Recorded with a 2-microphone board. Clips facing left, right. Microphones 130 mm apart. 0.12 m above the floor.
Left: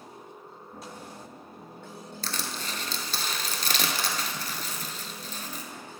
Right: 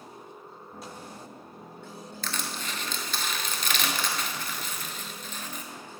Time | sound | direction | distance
2.2 | crushing | 40° left (ahead or behind) | 0.5 m